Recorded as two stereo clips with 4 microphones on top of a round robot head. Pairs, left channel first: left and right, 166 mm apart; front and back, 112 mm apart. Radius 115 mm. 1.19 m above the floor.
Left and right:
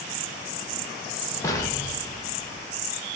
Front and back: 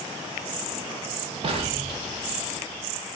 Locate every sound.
1.4 s an explosion: 160° left, 0.5 m